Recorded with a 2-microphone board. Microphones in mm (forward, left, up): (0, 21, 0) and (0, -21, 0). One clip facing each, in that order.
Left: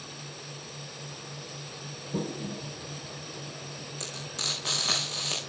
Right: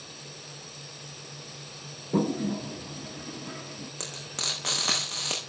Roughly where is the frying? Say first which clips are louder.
Even; right.